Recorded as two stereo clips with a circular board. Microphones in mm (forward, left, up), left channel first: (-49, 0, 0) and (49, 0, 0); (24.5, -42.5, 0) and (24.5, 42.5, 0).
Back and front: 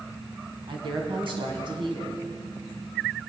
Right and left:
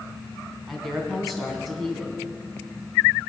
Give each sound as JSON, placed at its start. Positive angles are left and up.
{"t": 0.7, "sound": "a woman speaking", "azimuth_deg": 0, "distance_m": 3.0}